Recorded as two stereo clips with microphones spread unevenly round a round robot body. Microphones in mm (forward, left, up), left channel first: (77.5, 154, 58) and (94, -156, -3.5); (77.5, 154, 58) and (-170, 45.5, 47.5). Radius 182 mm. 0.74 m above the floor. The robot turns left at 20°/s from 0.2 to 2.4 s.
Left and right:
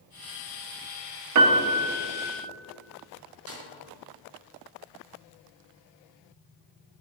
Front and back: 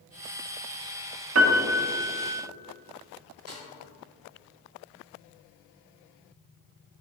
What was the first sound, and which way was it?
A piano, 115° right.